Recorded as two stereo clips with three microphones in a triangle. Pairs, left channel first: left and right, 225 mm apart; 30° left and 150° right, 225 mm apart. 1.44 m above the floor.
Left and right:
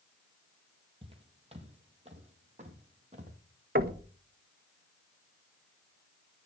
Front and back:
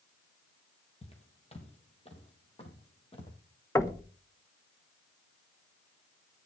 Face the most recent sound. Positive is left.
turn(degrees=-45)